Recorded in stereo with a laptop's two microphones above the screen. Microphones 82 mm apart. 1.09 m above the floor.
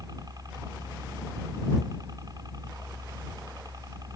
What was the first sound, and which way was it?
A helicopter, 50° right (ahead or behind).